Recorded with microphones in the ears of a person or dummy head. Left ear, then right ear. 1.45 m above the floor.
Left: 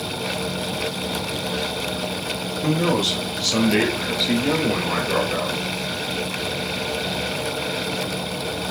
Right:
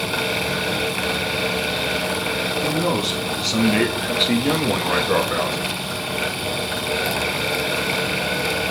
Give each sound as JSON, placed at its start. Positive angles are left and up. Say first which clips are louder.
{"t": 2.6, "sound": "a man speaking", "louder": "left 5 dB", "side_deg": 20, "distance_m": 3.0}